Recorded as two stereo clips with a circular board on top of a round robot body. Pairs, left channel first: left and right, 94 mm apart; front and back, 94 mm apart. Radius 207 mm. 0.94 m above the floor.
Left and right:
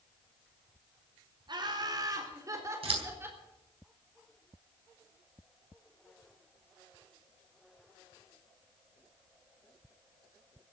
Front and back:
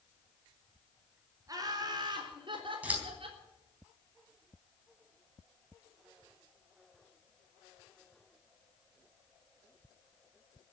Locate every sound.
1.5 s laughter: 130° right, 4 m; by 3.4 s 160° right, 4.5 m
2.8 s scissors: 105° right, 4 m